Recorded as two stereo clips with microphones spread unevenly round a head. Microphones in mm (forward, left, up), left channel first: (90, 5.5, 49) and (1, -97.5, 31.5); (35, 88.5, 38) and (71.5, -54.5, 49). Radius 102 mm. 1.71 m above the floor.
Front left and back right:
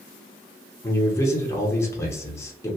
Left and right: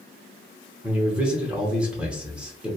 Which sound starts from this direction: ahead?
A man speaking, at 0.8 s.